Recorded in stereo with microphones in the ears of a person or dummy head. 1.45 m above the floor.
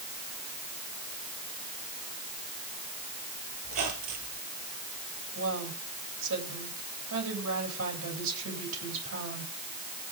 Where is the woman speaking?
80° right, 9.5 m.